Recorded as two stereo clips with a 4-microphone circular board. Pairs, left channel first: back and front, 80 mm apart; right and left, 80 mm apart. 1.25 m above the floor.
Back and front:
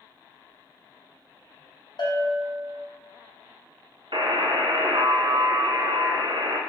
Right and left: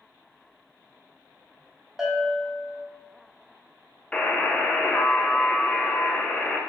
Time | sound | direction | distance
2.0 | a bell | 175° left | 0.9 m
4.1 | a buzzer | 15° right | 0.5 m